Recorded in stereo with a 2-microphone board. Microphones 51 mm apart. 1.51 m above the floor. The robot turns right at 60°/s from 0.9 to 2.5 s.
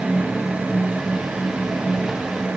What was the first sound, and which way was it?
Only background noise.